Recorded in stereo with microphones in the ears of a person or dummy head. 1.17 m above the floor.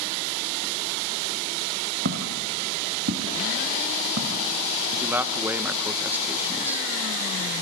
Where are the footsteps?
60° right (ahead or behind), 3 m.